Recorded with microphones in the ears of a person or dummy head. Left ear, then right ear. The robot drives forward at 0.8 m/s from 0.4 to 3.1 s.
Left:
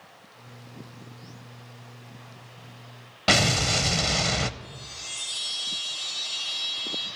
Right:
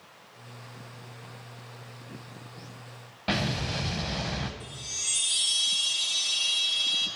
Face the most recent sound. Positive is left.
turn(degrees=-45)  # may be behind; listen again after turning